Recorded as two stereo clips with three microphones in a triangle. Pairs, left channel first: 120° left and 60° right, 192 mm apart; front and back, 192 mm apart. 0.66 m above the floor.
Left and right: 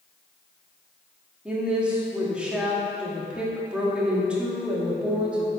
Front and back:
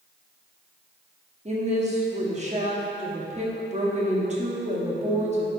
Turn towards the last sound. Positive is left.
turn(degrees=-140)